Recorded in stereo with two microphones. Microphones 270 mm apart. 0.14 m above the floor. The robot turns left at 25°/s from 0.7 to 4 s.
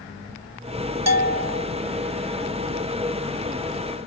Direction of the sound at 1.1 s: 70° right (ahead or behind).